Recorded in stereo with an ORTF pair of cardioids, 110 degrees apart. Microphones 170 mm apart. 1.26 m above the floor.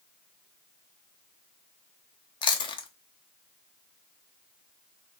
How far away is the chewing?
About 0.5 m.